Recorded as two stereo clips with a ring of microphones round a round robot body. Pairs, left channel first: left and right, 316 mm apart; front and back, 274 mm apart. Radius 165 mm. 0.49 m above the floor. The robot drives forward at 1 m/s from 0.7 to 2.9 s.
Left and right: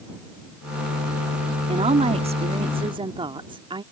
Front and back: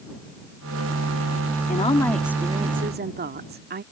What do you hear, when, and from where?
1.7 s a woman speaking: 30° right; by 3.8 s 155° right